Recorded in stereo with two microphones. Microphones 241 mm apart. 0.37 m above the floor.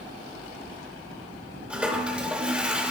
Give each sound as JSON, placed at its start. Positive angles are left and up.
{"t": 1.7, "sound": "a toilet flushing", "side_deg": -5, "distance_m": 0.7}